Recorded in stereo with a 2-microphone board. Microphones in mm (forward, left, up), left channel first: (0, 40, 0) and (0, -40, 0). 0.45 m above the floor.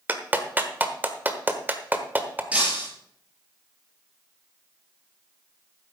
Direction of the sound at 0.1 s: 25° right (ahead or behind).